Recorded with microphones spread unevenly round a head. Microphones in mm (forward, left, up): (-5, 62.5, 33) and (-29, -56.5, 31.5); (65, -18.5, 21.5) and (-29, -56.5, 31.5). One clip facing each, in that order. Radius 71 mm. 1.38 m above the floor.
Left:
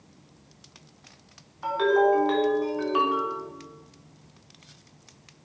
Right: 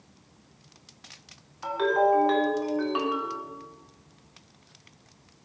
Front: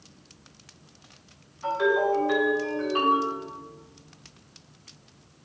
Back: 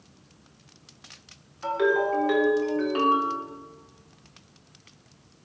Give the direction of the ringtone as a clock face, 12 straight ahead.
6 o'clock.